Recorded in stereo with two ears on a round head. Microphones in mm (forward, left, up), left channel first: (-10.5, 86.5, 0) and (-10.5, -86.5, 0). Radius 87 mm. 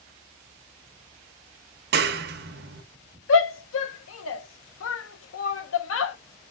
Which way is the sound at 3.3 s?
75° left (ahead or behind).